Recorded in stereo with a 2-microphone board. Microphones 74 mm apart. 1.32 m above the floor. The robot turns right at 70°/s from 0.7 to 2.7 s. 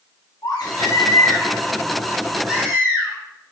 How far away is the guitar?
No guitar in this recording.